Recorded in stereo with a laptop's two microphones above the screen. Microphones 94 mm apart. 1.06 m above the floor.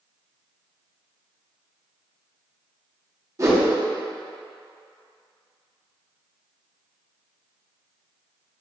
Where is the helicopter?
No helicopter in this recording.